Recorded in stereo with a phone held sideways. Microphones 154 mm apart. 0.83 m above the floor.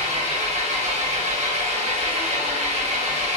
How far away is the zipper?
I don't hear a zipper.